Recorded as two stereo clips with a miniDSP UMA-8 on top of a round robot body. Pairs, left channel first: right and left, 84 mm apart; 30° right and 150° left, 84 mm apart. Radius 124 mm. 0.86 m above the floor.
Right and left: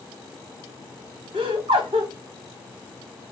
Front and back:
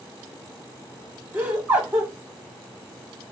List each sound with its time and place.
1.3 s laughter: 80° left, 1.2 m